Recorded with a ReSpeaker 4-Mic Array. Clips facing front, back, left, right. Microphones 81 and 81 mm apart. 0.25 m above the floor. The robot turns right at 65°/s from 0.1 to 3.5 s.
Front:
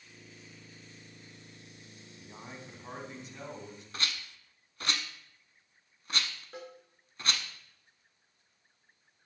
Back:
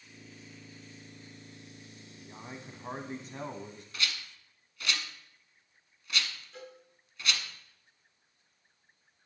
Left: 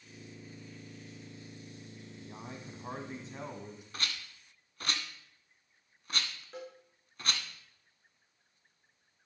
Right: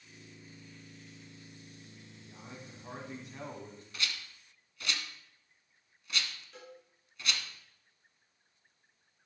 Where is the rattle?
50° left, 0.9 m.